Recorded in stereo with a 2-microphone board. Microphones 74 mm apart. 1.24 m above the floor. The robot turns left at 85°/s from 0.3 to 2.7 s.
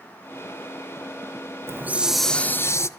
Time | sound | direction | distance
1.7 | a hiss | 135° right | 0.6 m